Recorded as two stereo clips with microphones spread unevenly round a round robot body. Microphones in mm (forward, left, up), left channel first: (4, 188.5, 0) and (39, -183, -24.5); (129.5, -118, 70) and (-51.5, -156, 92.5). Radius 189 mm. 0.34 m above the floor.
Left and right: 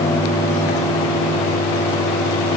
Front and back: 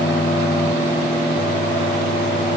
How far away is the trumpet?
I don't hear a trumpet.